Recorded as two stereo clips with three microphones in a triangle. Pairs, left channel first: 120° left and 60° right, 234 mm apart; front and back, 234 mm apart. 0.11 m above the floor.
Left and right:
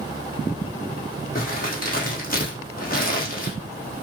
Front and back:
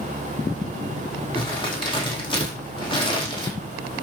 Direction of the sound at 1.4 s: 70° left.